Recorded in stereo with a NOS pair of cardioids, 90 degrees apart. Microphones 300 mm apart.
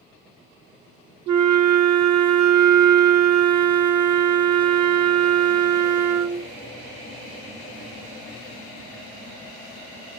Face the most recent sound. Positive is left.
turn(degrees=-65)